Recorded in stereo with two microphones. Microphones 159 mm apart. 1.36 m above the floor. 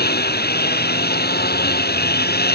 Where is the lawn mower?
85° left.